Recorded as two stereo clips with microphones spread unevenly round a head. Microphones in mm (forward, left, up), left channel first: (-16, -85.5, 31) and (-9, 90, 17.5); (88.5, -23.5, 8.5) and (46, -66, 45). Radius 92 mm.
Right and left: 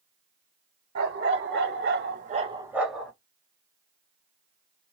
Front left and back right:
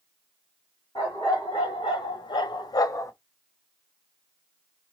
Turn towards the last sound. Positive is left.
turn(degrees=-15)